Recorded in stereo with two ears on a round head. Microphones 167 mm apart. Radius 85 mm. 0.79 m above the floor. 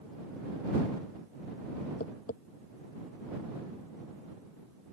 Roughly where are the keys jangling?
I don't hear keys jangling.